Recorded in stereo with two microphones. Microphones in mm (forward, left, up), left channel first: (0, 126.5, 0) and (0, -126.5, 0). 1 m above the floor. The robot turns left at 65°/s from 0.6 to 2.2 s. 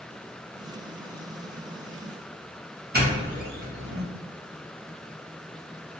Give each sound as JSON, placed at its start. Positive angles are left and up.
{"t": 2.9, "sound": "a doorbell", "side_deg": -40, "distance_m": 1.5}